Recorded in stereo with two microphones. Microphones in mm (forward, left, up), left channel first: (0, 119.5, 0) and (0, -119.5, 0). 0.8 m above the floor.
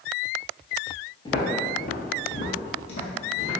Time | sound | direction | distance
1.2 | footsteps | 15° left (ahead or behind) | 0.9 m